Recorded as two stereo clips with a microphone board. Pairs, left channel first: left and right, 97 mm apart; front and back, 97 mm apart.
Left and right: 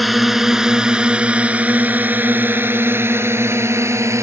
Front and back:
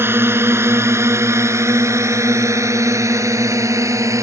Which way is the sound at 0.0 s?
Straight behind.